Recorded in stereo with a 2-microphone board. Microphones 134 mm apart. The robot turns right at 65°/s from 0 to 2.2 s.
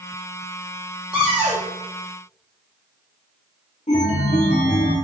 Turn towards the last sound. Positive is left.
turn(degrees=75)  # may be behind; listen again after turning